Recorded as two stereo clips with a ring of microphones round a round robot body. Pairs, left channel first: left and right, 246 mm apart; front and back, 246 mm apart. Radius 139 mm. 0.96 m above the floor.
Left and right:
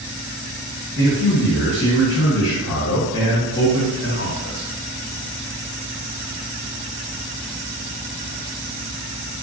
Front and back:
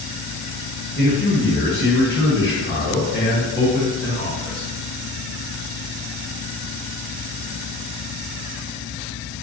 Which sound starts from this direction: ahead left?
A man speaking, at 1.0 s.